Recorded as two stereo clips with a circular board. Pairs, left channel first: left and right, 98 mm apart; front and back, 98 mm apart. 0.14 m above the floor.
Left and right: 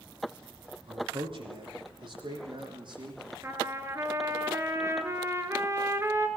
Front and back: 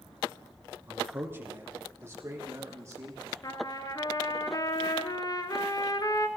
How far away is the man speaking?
About 5 m.